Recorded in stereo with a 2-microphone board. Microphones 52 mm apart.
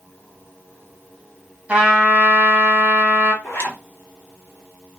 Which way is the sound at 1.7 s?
25° right (ahead or behind).